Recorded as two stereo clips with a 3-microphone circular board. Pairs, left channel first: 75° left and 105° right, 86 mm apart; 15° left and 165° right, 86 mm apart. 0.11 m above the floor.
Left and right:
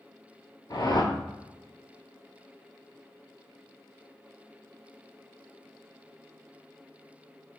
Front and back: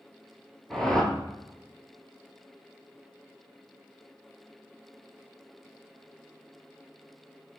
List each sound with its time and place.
0.7 s a whoosh: 95° left, 0.6 m